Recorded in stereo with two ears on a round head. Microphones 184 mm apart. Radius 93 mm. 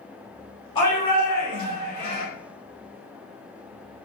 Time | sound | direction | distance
0.8 | a shout | 25° left (ahead or behind) | 1.2 m